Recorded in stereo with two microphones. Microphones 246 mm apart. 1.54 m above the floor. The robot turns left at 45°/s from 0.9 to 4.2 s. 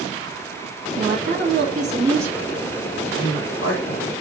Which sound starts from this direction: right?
A woman speaking, at 1.0 s.